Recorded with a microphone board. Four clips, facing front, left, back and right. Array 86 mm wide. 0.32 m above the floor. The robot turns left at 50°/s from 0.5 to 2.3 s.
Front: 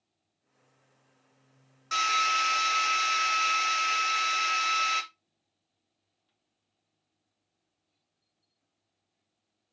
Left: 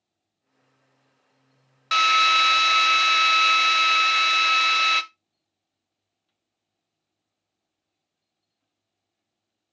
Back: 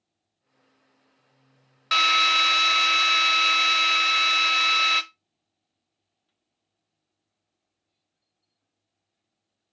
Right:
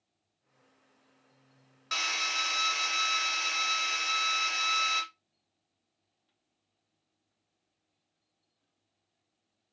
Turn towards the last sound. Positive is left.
turn(degrees=120)